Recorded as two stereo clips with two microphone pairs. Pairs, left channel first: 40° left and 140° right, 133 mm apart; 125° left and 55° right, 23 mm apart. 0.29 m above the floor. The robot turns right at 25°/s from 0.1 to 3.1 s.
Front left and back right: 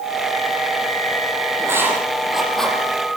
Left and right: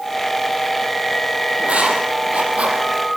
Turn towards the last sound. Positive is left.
turn(degrees=-35)